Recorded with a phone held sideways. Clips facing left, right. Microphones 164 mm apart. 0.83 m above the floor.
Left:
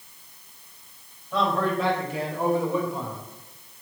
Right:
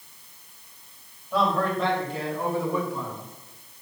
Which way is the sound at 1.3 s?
5° right (ahead or behind).